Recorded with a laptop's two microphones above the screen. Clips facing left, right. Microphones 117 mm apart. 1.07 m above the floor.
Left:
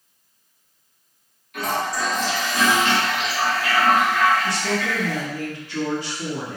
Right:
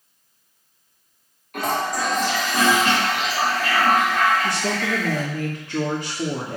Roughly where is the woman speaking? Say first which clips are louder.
Even; right.